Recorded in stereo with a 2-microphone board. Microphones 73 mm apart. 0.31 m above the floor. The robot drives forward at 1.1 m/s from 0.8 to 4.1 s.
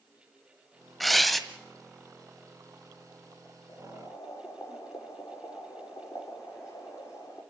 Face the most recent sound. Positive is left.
turn(degrees=40)  # may be behind; listen again after turning